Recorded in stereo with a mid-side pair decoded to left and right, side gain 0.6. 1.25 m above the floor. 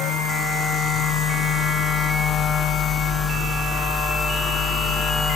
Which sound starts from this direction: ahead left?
A machine running, at 0.0 s.